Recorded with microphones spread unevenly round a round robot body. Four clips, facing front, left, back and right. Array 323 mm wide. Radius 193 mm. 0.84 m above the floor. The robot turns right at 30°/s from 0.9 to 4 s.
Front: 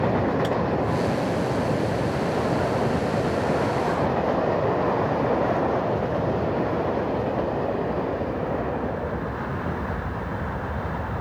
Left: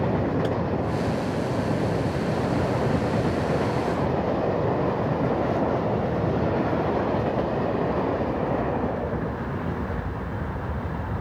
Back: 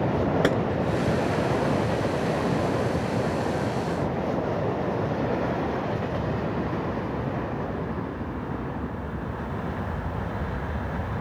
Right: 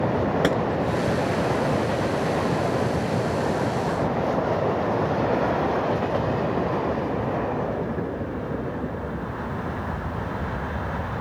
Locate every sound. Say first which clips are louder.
0.4 s a gunshot: right 4 dB, back 2 dB; 125° right